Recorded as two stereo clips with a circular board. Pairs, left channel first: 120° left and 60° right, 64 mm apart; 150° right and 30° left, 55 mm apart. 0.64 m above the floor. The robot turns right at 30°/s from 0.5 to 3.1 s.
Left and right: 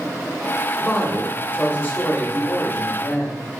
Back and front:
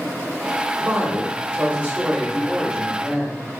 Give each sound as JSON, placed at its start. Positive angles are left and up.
{"t": 0.8, "sound": "a woman speaking", "azimuth_deg": 50, "distance_m": 0.7}